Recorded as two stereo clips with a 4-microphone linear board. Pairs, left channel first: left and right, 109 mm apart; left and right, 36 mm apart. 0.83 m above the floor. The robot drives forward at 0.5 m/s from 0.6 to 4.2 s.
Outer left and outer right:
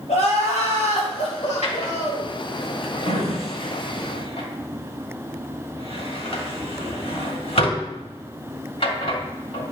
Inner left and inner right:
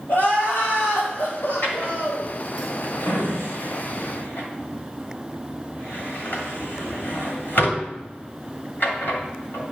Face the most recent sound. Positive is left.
turn(degrees=60)  # may be behind; listen again after turning